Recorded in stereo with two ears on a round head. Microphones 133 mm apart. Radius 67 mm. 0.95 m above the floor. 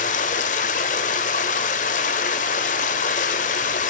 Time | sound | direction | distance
0.0 | running water | 60° left (ahead or behind) | 1.1 m